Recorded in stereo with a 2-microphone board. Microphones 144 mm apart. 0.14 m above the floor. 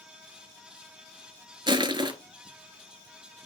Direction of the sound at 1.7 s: 30° right (ahead or behind).